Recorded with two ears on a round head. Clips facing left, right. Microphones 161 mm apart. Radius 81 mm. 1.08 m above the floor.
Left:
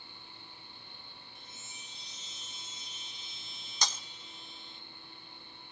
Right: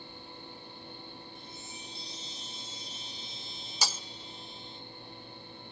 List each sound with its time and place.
1.4 s a chime: 30° right (ahead or behind), 2 m
3.8 s breaking glass: 5° right (ahead or behind), 0.7 m